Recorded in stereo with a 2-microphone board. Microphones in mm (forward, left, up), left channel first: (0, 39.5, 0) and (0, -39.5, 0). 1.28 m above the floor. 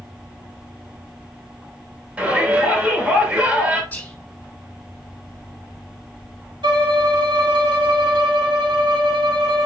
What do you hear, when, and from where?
2.2 s a shout: 20° right (ahead or behind), 5.5 m
3.9 s whispering: 20° left (ahead or behind), 5 m
6.6 s a violin: 85° right, 2.5 m